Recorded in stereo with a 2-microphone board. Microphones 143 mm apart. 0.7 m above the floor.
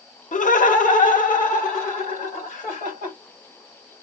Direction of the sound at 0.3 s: 60° left (ahead or behind).